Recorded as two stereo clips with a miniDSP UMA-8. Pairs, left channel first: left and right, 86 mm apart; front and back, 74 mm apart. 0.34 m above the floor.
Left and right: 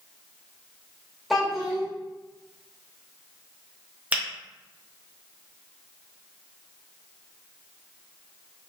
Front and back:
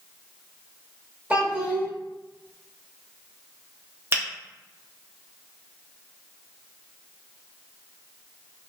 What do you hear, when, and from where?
1.3 s a child speaking: straight behind, 0.8 m
4.1 s a finger snap: 150° right, 0.8 m